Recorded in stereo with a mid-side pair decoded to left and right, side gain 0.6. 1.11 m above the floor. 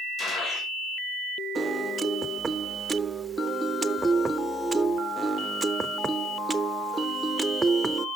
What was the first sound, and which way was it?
A gunshot, 45° left.